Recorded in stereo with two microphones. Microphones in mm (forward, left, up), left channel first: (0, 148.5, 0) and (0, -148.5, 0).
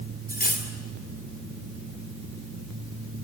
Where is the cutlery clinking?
30° left (ahead or behind), 2.5 m.